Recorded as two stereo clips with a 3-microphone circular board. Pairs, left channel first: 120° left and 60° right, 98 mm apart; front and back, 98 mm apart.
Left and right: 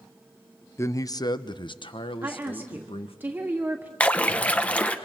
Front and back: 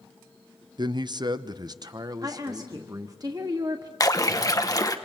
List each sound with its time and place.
0.8 s a man speaking: 170° left, 0.6 m; by 3.2 s 130° left, 1.6 m
2.2 s a woman speaking: 130° right, 1.5 m
4.0 s a splash: 45° left, 1.0 m